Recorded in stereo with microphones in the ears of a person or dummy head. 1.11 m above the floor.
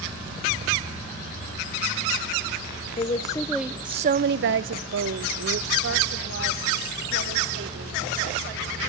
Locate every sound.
3.0 s a woman speaking: 30° left (ahead or behind), 0.7 m; by 8.0 s 65° right (ahead or behind), 3 m